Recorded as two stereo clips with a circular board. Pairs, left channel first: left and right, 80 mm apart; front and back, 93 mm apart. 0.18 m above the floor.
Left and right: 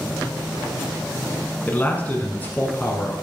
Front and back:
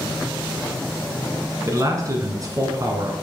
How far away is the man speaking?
About 1.7 m.